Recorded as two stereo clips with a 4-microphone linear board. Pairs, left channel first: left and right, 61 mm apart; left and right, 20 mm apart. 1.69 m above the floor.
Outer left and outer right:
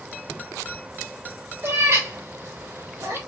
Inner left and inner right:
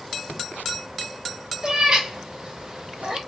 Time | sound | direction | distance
1.6 | a cat meowing | 45° right (ahead or behind) | 2 m